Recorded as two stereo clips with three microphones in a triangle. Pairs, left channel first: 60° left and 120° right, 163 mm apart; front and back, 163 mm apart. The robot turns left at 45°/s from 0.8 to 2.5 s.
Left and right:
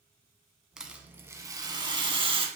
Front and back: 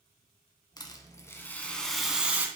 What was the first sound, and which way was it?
A rattle, 35° right.